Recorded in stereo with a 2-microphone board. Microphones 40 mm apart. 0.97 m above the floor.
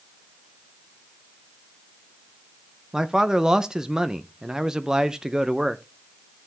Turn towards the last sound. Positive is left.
turn(degrees=-15)  # may be behind; listen again after turning